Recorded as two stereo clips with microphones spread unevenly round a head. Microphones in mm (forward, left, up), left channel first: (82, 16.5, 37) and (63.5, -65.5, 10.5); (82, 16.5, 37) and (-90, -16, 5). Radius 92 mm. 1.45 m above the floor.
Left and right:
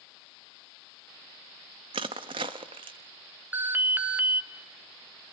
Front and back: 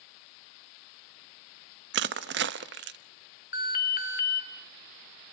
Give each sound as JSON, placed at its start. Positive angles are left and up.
{"t": 1.9, "sound": "crushing", "azimuth_deg": -155, "distance_m": 0.9}
{"t": 3.5, "sound": "an alarm", "azimuth_deg": -30, "distance_m": 2.5}